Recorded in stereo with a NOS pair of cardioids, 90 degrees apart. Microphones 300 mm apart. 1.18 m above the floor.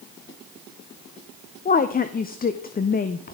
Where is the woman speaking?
30° left, 0.6 m.